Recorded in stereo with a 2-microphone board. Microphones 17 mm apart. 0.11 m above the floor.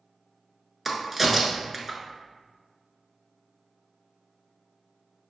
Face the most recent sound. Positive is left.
turn(degrees=-10)  # may be behind; listen again after turning